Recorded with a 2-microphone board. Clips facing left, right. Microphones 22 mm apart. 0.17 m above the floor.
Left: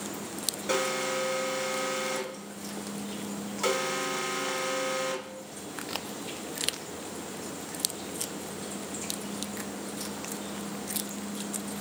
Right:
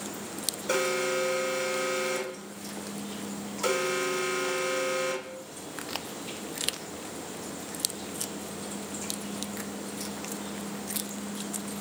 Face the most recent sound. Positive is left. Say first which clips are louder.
# right 2 dB
turn(degrees=20)  # may be behind; listen again after turning